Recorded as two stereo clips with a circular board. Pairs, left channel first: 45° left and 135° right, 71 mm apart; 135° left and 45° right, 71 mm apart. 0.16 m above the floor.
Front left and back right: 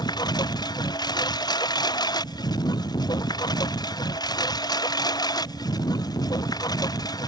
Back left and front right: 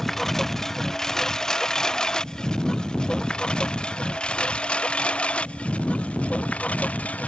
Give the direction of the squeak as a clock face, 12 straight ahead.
I don't hear a squeak.